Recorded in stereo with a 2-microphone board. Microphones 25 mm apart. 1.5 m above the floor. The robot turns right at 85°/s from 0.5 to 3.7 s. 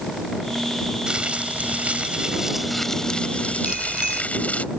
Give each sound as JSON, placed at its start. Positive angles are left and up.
{"t": 1.1, "sound": "crumpling", "azimuth_deg": -145}
{"t": 3.6, "sound": "a bicycle bell", "side_deg": -35}